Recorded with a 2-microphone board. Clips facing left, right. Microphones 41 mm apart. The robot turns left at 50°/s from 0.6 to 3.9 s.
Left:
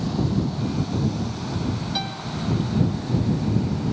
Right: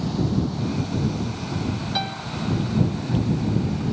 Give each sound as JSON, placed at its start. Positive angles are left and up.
{"t": 1.9, "sound": "a piano", "side_deg": -15}